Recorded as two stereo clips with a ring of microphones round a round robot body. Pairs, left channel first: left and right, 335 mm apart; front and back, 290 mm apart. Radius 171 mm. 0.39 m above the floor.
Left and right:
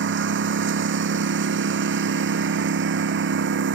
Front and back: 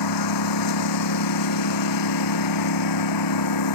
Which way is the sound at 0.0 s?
30° right.